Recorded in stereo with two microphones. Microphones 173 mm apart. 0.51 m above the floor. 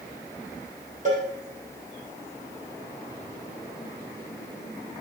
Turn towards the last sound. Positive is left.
turn(degrees=-50)  # may be behind; listen again after turning